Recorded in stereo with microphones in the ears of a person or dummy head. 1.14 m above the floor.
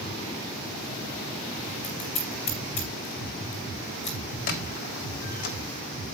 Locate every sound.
1.8 s scissors: 40° left (ahead or behind), 3 m
4.5 s a squeak: 50° left (ahead or behind), 1.6 m